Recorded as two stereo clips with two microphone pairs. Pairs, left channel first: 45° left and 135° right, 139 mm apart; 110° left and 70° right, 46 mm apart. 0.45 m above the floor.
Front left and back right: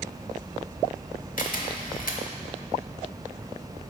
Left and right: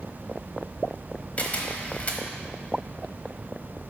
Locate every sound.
1.4 s a camera shutter: 55° left, 1.0 m